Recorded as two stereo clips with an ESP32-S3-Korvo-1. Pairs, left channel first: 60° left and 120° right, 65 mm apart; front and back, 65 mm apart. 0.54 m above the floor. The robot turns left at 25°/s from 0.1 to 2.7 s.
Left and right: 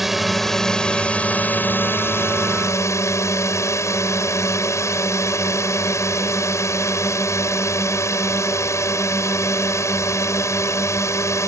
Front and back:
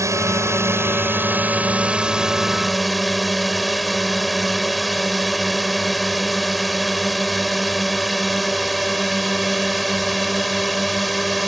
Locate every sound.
0.0 s a drone: 155° left; by 11.5 s 90° left